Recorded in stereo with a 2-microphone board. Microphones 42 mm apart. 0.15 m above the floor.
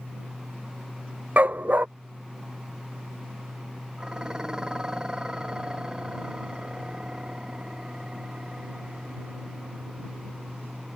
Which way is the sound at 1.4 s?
40° right (ahead or behind).